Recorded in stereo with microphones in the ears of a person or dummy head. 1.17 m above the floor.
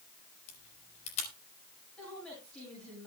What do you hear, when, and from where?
0.5 s a camera shutter: 40° left (ahead or behind), 4 m
2.0 s a woman speaking: 5° left (ahead or behind), 8.5 m